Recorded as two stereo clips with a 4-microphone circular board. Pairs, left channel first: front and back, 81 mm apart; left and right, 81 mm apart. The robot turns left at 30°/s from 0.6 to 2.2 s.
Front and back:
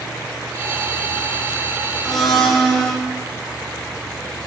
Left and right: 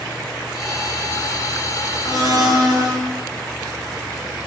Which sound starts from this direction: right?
A blender, at 2.0 s.